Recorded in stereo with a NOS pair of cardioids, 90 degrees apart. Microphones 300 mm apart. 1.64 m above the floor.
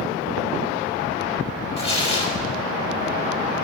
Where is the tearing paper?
20° left, 3.5 m.